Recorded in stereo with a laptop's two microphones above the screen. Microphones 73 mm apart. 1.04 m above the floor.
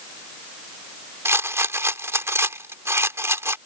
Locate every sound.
1.2 s a rattle: 35° right (ahead or behind)